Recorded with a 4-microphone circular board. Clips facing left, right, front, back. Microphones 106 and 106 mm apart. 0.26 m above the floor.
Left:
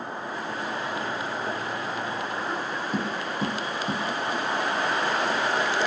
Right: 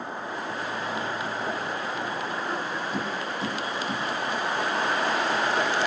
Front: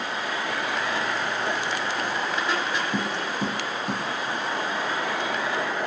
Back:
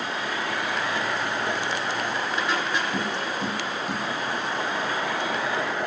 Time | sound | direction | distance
2.9 | tapping | 45° left | 4.5 m